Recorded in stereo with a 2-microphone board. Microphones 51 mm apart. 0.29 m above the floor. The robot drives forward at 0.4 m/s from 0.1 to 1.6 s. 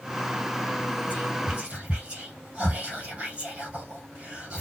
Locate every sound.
1.1 s whispering: 25° right (ahead or behind), 1.7 m